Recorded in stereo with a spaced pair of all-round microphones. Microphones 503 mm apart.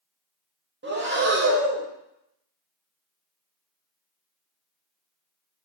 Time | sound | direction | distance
0.8 | breathing | 25° right (ahead or behind) | 0.5 m